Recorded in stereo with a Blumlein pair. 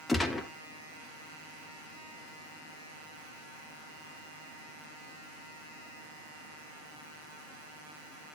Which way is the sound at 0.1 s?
5° left.